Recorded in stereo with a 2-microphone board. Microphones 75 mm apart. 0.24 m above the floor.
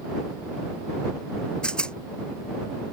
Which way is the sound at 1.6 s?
15° left (ahead or behind).